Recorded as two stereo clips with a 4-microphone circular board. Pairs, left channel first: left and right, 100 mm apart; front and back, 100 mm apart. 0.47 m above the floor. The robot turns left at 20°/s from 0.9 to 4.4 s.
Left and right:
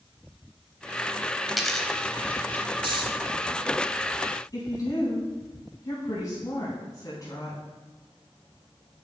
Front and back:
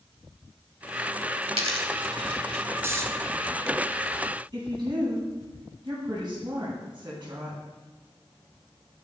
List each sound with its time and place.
1.5 s a dropped coin: straight behind, 1.0 m; by 2.6 s 160° left, 1.0 m
2.8 s snoring: 120° right, 0.8 m
4.5 s a woman speaking: 140° left, 3.5 m